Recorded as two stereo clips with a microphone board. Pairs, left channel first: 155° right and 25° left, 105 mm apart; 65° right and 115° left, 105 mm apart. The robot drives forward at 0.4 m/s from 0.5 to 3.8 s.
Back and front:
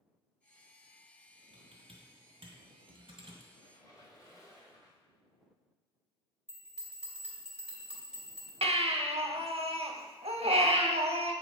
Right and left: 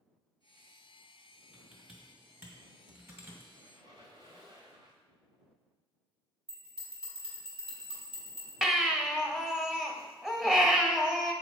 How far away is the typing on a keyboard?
About 2.0 m.